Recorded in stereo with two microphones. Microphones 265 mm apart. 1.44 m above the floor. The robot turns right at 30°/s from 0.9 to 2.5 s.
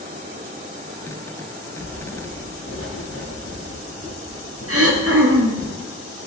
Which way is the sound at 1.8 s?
45° left (ahead or behind).